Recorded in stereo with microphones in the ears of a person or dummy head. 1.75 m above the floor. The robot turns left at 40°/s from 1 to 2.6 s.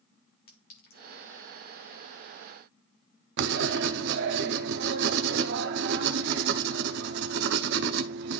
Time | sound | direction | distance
0.5 | a clink | 50° left (ahead or behind) | 1.4 m
3.4 | writing | 60° right (ahead or behind) | 0.7 m